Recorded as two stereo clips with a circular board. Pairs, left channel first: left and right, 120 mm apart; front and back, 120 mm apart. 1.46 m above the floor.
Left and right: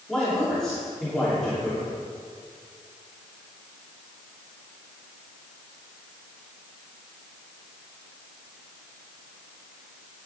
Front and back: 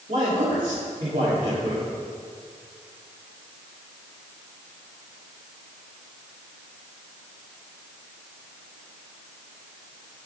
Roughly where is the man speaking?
Behind.